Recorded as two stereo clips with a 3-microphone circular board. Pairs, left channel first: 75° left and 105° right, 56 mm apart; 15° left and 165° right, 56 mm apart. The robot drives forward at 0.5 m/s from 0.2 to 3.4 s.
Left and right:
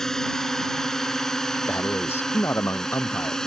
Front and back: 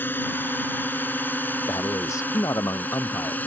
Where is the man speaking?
25° left; by 3.4 s 30° left.